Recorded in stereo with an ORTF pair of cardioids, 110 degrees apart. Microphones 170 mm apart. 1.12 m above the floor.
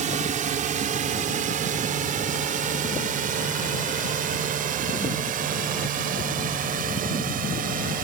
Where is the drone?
50° right; by 8.0 s 60° right.